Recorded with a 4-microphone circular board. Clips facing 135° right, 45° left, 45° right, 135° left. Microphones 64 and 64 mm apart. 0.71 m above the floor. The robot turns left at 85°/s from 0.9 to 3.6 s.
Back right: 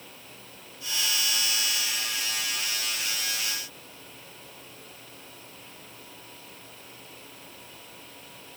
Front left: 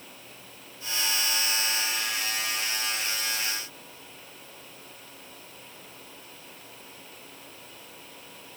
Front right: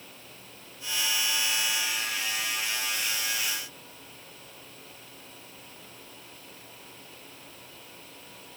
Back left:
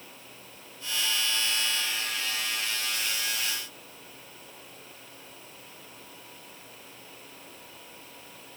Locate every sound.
Only background noise.